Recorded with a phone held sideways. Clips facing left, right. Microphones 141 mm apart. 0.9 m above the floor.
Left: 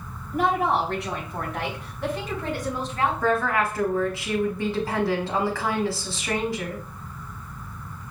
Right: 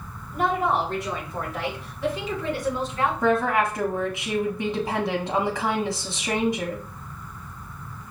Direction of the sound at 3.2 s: 20° right (ahead or behind).